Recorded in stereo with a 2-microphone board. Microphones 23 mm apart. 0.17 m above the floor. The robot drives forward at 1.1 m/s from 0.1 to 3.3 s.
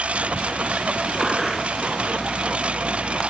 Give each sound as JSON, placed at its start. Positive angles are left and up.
{"t": 0.0, "sound": "a lawn mower", "side_deg": -60}
{"t": 1.2, "sound": "a gunshot", "side_deg": 0}